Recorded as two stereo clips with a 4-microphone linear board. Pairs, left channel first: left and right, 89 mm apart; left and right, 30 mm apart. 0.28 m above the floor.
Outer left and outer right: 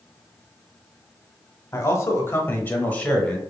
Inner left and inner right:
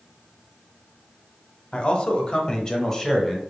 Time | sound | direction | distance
1.7 | a man speaking | 30° left (ahead or behind) | 1.2 m